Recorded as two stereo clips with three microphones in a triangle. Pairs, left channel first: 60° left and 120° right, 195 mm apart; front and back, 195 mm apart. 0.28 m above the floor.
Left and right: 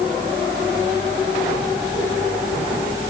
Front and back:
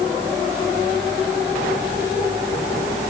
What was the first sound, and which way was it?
Only background noise.